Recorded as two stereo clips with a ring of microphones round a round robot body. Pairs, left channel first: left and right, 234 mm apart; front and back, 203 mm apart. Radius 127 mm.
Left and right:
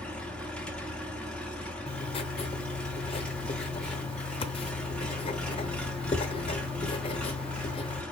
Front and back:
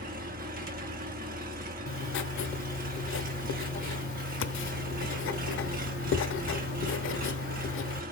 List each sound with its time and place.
0.0 s an engine running: 175° left, 1.2 m
1.9 s writing: 20° left, 0.6 m